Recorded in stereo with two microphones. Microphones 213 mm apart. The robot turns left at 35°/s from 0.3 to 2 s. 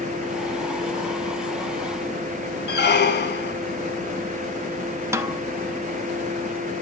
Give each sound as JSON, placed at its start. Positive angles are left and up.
{"t": 2.7, "sound": "a squeak", "side_deg": 55, "distance_m": 0.8}
{"t": 5.1, "sound": "a snare drum", "side_deg": -15, "distance_m": 0.7}